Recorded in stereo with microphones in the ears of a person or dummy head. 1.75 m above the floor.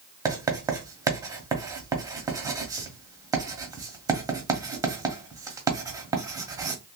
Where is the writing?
15° right (ahead or behind), 0.9 m.